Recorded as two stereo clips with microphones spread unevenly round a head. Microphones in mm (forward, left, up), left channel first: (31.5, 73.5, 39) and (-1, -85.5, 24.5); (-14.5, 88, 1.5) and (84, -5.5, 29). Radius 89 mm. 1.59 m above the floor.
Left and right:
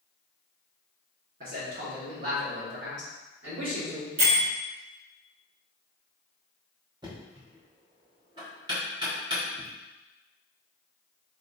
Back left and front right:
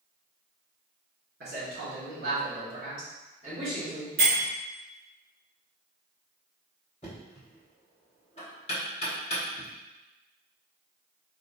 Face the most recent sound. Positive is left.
turn(degrees=-165)